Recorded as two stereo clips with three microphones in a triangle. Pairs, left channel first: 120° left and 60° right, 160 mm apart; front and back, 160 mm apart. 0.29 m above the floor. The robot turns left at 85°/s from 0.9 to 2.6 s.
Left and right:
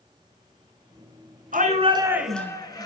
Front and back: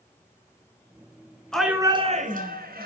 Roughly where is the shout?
Right.